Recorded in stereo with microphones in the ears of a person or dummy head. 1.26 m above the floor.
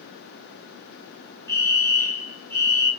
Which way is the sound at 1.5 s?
15° left (ahead or behind).